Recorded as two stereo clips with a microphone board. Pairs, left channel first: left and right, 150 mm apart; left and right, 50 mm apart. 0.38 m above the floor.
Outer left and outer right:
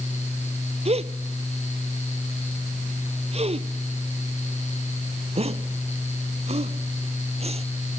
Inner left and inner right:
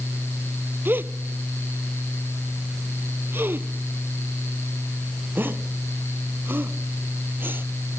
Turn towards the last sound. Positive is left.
turn(degrees=-45)  # may be behind; listen again after turning